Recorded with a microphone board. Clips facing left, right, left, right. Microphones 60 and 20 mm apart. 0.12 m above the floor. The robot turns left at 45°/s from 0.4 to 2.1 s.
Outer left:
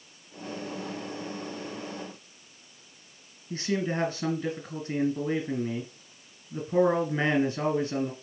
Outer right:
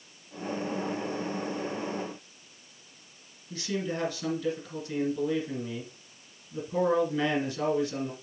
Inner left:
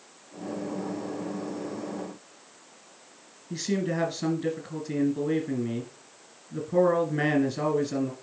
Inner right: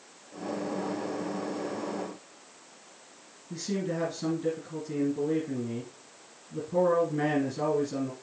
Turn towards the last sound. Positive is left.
turn(degrees=35)  # may be behind; listen again after turning